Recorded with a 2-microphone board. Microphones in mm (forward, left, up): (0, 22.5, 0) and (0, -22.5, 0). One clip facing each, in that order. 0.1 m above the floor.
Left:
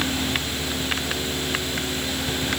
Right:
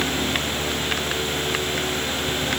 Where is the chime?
I don't hear a chime.